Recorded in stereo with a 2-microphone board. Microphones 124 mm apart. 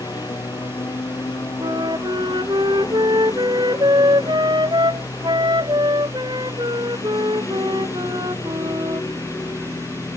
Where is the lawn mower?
30° left (ahead or behind); by 10.2 s 20° left (ahead or behind).